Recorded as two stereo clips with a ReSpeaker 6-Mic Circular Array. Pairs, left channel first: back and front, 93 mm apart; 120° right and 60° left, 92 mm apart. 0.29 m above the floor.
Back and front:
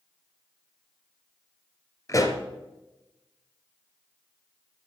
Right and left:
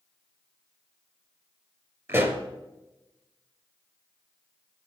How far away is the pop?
About 2 m.